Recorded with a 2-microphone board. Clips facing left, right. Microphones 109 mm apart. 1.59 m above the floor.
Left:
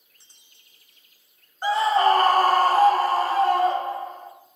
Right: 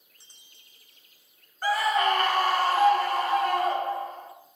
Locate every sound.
1.6 s a scream: 20° left (ahead or behind), 0.7 m; by 4.3 s 25° left (ahead or behind), 1.6 m